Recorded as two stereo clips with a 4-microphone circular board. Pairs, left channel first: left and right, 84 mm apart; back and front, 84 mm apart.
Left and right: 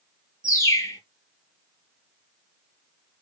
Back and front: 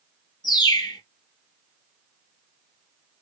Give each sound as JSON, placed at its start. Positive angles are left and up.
{"t": 0.4, "sound": "a bird", "azimuth_deg": 145, "distance_m": 1.9}